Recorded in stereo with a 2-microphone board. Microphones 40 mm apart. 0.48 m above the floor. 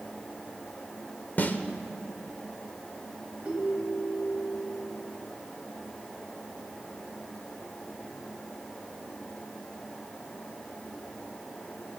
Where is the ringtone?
30° right (ahead or behind), 2.5 m.